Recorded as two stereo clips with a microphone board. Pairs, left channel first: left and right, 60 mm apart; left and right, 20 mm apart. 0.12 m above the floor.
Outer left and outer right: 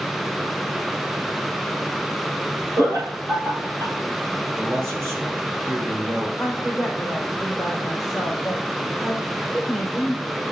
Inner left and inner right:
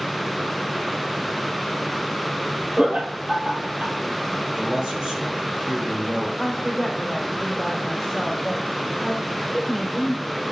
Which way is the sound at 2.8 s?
65° right (ahead or behind).